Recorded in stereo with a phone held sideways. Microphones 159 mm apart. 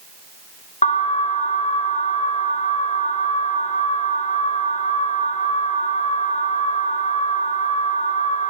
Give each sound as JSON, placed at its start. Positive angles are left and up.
{"t": 0.8, "sound": "an alarm", "side_deg": 50, "distance_m": 0.6}